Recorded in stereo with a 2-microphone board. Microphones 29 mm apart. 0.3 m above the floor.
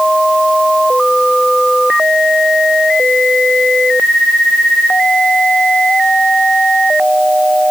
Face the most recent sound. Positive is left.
No sound to turn to.